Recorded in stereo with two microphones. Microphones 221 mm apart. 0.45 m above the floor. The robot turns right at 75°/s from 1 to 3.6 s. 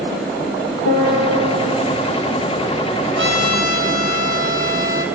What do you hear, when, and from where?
0.8 s a piano: 95° left, 4.5 m; by 1.9 s 160° left, 4.5 m
3.2 s a trumpet: 80° right, 2.5 m; by 5.0 s 45° right, 2.5 m